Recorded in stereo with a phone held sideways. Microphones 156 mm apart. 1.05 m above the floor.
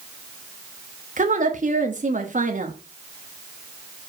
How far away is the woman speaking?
About 1.3 m.